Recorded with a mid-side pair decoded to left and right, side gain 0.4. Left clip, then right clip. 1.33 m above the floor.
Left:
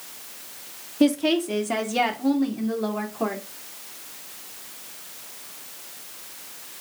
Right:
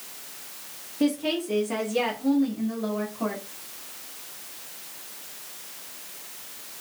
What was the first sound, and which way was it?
A woman speaking, 45° left.